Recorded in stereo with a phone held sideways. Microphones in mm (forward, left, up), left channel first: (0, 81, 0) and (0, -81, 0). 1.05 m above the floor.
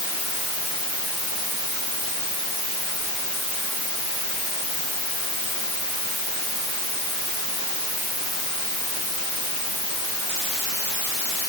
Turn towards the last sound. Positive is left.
No sound to turn to.